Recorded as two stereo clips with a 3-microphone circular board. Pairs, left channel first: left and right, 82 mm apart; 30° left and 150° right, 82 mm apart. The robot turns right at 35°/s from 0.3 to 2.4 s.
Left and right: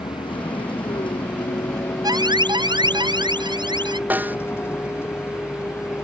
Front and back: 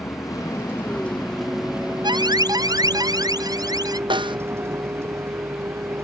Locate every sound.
0.0 s a vehicle: 80° left; by 6.0 s 150° left
2.0 s an alarm: 125° right; by 4.0 s 115° right
4.1 s a snare drum: 160° right